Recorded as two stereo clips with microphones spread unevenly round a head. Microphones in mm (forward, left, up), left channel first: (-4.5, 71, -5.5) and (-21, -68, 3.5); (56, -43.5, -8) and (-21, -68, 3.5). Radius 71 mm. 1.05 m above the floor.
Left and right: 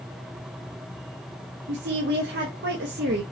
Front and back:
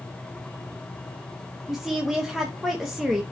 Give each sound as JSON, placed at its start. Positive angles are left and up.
{"t": 1.7, "sound": "a woman speaking", "azimuth_deg": -75, "distance_m": 0.8}